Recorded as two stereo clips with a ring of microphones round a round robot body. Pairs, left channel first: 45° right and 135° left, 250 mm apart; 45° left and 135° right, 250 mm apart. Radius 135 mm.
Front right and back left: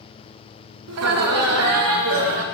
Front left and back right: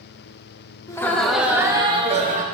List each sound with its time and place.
0.9 s laughter: 120° left, 1.3 m; by 2.4 s 170° left, 1.5 m